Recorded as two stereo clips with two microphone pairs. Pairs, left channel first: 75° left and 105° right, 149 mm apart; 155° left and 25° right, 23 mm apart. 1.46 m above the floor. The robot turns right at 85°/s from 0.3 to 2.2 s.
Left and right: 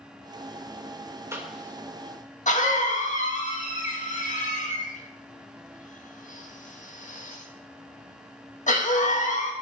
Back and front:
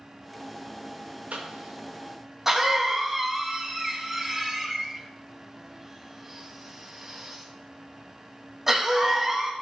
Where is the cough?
30° right, 2.0 m; by 9.5 s 45° left, 2.0 m.